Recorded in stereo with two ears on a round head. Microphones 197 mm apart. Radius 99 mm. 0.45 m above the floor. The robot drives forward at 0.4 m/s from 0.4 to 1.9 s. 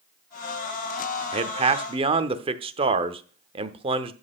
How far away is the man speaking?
About 0.8 m.